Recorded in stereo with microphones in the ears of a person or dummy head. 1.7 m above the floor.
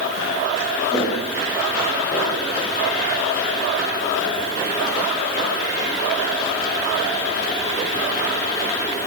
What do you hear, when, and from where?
0.9 s footsteps: 15° left (ahead or behind), 9.5 m; by 2.5 s 25° left (ahead or behind), 9.5 m